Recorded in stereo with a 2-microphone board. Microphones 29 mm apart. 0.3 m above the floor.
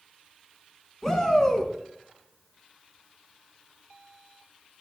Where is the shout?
20° left (ahead or behind), 3 m.